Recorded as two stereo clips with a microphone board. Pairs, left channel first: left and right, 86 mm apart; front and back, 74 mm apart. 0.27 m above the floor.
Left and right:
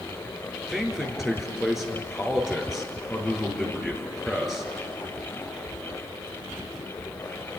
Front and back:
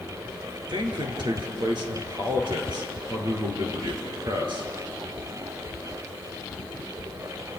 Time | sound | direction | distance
0.7 | a man speaking | straight behind | 4.5 m